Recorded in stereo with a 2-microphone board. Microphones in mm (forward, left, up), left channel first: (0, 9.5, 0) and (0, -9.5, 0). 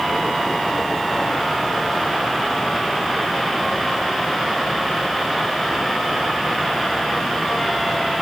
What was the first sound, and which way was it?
Only background noise.